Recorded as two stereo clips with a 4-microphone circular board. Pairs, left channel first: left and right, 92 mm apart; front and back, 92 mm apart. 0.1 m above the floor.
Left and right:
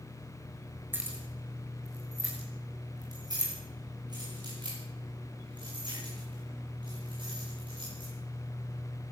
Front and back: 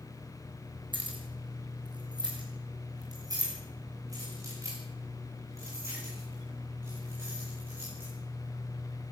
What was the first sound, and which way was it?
Keys jangling, 155° right.